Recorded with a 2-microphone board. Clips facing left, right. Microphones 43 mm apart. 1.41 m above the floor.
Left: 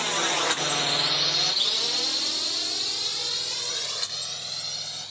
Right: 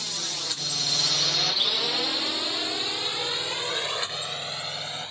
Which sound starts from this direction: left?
A drone, at 0.0 s.